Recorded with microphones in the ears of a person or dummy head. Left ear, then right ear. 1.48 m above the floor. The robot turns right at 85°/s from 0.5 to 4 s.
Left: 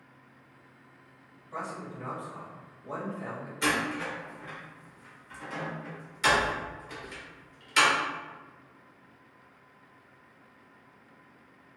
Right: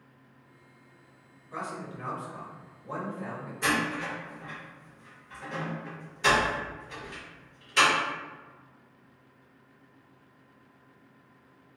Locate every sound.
1.5 s a man speaking: 100° right, 1.4 m; by 3.5 s 70° left, 1.4 m
3.6 s a door slam: 80° left, 1.1 m; by 7.9 s 60° left (ahead or behind), 1.1 m